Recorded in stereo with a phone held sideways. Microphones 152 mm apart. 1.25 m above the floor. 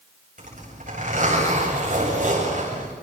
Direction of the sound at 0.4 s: 55° right (ahead or behind).